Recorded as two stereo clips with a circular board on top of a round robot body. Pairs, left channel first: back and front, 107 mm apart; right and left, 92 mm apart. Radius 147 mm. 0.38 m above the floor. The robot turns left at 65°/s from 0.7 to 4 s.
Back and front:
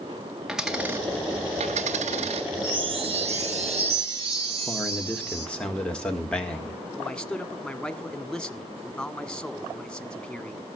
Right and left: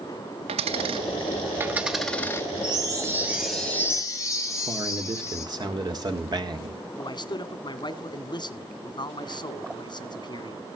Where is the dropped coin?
85° left, 0.6 m; by 2.5 s 30° right, 0.6 m.